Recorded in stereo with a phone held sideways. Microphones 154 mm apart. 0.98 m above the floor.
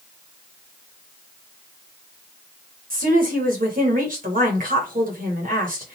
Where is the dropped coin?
I don't hear a dropped coin.